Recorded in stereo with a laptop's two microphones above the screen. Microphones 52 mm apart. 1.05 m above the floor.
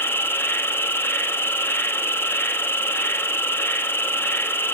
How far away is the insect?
About 1.0 m.